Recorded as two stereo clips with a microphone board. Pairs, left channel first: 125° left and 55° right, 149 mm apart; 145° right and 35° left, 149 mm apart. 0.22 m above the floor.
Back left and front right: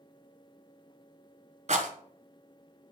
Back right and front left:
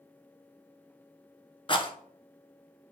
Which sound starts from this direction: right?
A rattle, at 1.7 s.